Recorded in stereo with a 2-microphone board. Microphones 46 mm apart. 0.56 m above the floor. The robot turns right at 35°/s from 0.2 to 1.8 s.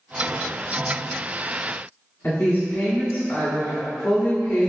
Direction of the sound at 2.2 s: 45° left (ahead or behind).